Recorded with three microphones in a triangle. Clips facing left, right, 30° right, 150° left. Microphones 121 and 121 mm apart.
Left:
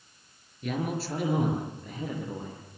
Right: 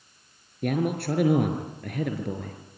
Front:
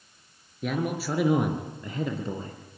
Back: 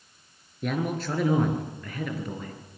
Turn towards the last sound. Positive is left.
turn(degrees=-90)